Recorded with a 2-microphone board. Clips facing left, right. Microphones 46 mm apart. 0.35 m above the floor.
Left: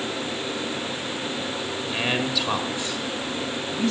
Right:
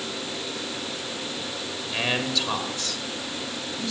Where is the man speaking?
5° right (ahead or behind), 1.3 m; by 3.9 s 45° left (ahead or behind), 1.5 m.